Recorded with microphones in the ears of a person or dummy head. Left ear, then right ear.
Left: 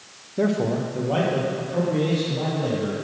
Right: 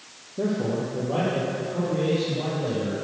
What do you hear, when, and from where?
0.4 s a man speaking: 45° left (ahead or behind), 0.6 m; by 3.0 s 50° left (ahead or behind), 4.5 m